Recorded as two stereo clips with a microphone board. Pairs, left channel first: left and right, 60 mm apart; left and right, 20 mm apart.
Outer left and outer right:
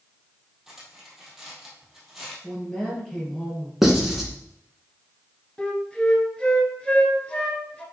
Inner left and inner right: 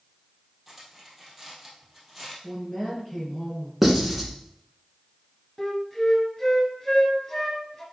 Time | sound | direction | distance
0.7 | cutlery clinking | 5° right (ahead or behind) | 2.5 m
2.4 | a woman speaking | 10° left (ahead or behind) | 3 m
3.8 | writing | 5° right (ahead or behind) | 1.7 m
5.6 | a flute | 15° left (ahead or behind) | 1.7 m